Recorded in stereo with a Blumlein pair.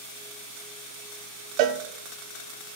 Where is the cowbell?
40° right, 1.1 m.